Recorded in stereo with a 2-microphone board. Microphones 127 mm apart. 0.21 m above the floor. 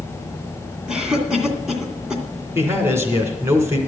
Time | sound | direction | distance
0.9 | a cough | 5° right (ahead or behind) | 2 m
2.5 | a man speaking | 20° right (ahead or behind) | 2.5 m